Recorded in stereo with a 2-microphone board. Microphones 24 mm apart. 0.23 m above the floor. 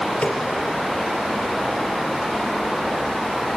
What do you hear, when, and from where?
0.2 s a snare drum: 80° left, 4 m